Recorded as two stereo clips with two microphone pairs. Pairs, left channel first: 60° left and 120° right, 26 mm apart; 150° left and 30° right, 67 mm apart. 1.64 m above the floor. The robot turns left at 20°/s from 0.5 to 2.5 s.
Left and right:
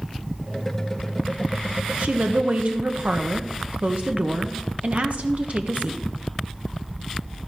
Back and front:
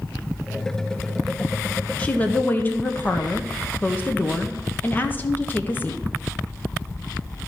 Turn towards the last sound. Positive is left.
turn(degrees=-150)